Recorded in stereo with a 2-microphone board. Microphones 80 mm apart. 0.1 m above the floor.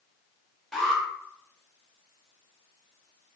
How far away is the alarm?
About 1.2 m.